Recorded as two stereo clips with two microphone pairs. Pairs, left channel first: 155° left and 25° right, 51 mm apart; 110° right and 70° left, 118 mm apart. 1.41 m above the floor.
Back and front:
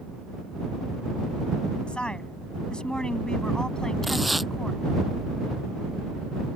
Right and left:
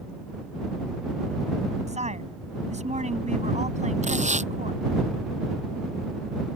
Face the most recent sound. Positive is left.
turn(degrees=65)